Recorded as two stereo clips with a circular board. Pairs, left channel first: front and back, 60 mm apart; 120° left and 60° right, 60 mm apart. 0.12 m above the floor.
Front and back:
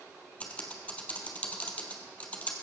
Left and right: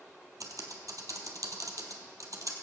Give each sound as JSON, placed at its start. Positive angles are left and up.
{"t": 0.4, "sound": "typing on a keyboard", "azimuth_deg": -65, "distance_m": 1.7}